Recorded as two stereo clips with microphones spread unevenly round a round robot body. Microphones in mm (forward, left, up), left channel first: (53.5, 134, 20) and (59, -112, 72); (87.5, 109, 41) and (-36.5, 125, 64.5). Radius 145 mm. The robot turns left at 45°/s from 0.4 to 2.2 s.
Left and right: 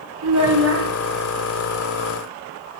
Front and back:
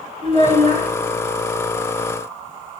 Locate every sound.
0.2 s a child speaking: 130° right, 1.9 m; by 0.9 s 150° right, 1.9 m